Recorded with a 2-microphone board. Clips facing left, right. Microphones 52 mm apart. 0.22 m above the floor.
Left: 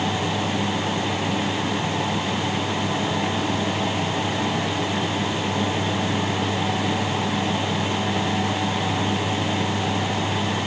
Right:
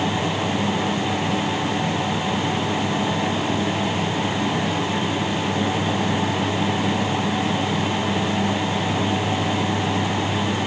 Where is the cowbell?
No cowbell in this recording.